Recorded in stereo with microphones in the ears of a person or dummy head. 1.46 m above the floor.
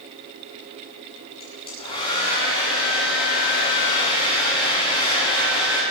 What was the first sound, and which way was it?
A hair dryer, 25° left (ahead or behind).